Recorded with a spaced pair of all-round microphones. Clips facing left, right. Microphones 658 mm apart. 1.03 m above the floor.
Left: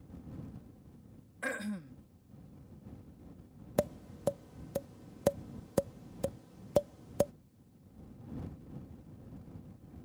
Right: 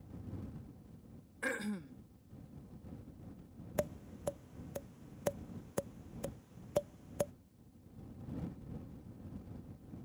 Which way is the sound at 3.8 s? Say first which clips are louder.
Left 6 dB; 65° left (ahead or behind).